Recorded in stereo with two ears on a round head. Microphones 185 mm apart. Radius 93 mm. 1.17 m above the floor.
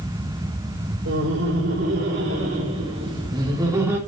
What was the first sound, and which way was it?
Laughter, 65° right (ahead or behind).